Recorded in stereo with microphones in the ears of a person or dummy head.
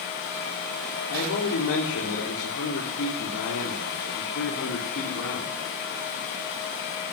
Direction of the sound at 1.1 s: 80° left.